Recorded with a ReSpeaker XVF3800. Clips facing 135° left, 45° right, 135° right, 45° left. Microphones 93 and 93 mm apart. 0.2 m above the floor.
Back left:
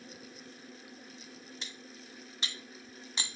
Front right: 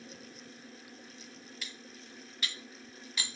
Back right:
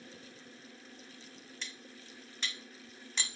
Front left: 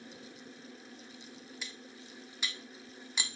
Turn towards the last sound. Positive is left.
turn(degrees=115)